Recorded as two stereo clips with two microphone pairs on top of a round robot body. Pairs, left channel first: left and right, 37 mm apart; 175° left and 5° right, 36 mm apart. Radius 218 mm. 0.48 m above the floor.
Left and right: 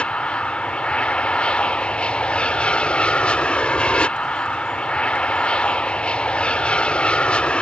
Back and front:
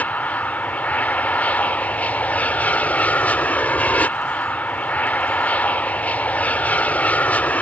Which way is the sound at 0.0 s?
150° left.